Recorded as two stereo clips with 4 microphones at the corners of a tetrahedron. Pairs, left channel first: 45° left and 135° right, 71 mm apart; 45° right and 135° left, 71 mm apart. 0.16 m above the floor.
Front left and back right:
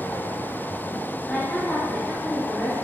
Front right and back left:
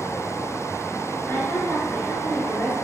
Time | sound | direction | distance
1.3 | a woman speaking | 5° right | 1.8 m